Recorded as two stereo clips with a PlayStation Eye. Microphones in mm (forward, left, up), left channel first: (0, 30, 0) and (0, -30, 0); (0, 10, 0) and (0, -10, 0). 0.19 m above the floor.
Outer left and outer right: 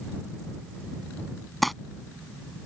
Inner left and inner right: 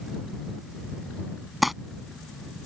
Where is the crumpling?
Centre (ahead or behind).